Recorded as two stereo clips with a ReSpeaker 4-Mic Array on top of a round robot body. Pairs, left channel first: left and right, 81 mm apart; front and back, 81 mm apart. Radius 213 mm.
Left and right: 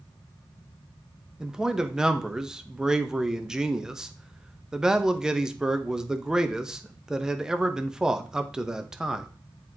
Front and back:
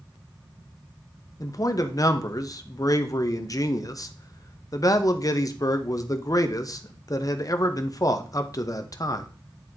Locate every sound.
1.4 s a man speaking: 10° right, 1.1 m